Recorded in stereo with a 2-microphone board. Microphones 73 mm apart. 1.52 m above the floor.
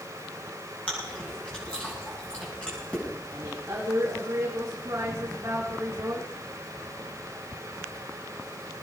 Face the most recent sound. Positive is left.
turn(degrees=-35)  # may be behind; listen again after turning